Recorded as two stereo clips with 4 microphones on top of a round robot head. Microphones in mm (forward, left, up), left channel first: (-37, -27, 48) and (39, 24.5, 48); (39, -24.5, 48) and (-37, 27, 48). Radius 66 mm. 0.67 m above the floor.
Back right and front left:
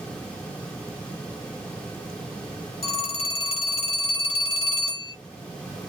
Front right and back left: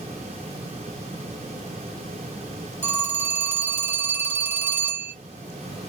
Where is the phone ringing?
150° right, 1.1 m.